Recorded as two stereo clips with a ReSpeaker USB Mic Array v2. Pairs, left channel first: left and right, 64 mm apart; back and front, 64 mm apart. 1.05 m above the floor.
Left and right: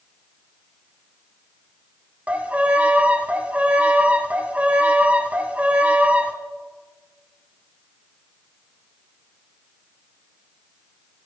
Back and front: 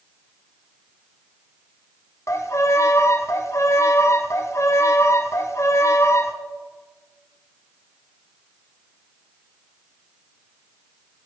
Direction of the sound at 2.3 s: 155° right.